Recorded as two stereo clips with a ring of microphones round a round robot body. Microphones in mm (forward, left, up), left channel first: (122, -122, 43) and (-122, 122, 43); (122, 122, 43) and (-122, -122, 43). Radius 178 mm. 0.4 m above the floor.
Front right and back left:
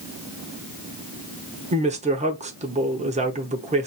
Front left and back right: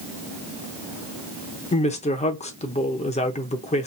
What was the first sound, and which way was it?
A woman speaking, 90° left.